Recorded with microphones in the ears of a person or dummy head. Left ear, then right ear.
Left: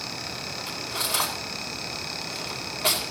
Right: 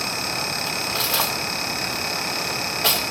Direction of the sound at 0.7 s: 55° right (ahead or behind).